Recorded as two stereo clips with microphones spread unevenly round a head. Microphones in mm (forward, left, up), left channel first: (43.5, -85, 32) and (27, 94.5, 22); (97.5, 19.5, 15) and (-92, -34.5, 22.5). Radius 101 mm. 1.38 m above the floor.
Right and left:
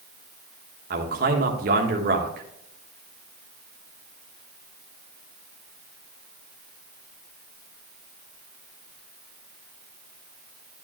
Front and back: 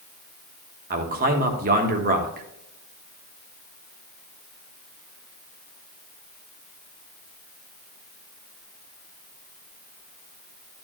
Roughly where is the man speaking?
Behind left.